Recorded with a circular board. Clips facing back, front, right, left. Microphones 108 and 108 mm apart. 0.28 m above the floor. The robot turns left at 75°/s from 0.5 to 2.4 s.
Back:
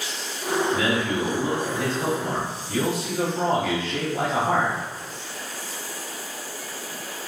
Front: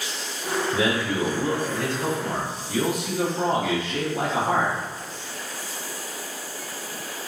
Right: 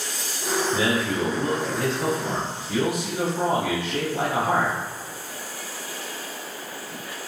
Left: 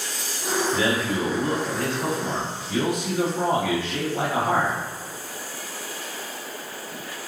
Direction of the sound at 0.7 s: 45° right.